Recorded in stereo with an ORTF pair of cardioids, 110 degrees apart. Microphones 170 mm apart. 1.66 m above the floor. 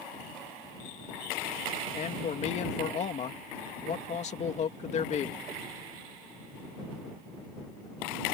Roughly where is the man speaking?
Ahead left.